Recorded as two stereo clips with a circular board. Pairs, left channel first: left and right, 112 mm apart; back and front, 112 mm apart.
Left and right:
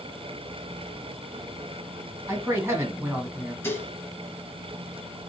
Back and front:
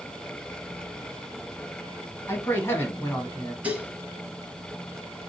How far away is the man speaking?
About 1.2 m.